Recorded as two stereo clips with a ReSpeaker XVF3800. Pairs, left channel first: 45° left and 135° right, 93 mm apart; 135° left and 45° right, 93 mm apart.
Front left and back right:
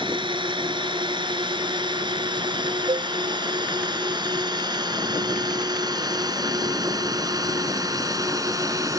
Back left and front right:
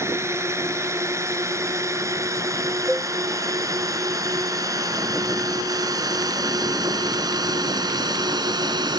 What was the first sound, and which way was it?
A drone, 105° right.